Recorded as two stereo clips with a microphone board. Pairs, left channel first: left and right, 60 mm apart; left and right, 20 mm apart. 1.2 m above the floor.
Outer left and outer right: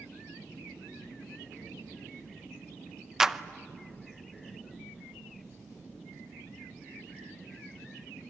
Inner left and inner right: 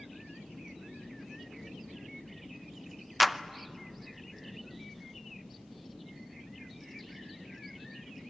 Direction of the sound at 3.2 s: 5° right (ahead or behind).